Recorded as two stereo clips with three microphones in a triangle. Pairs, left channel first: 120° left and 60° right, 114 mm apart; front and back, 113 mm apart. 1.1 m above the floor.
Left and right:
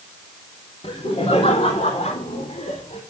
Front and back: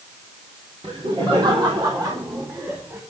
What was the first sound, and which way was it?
Laughter, 150° left.